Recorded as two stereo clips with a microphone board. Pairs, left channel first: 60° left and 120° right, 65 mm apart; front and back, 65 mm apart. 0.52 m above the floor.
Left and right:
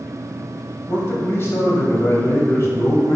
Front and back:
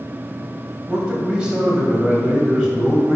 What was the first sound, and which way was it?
A man speaking, 110° left.